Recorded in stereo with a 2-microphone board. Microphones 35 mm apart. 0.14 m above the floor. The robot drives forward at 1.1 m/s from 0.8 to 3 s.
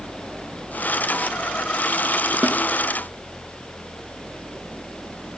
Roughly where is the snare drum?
Right.